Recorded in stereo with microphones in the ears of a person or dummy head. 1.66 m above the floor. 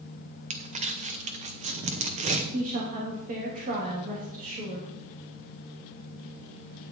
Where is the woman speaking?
40° right (ahead or behind), 2.5 m.